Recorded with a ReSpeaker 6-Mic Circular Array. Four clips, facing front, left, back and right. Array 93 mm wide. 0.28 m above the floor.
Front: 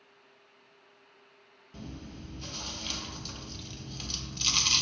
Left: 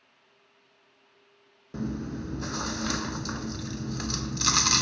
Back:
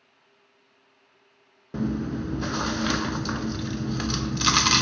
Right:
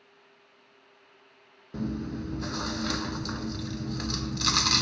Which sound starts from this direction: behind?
Chewing, at 1.7 s.